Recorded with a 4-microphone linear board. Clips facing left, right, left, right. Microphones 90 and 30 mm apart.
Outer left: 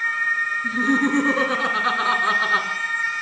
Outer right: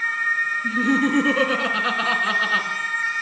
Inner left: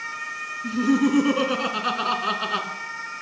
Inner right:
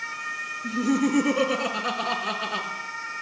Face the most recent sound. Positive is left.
turn(degrees=20)  # may be behind; listen again after turning